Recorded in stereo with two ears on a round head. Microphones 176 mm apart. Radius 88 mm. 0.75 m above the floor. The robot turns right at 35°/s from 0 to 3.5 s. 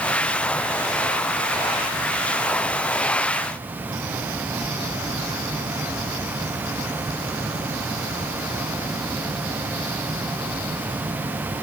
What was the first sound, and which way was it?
Only background noise.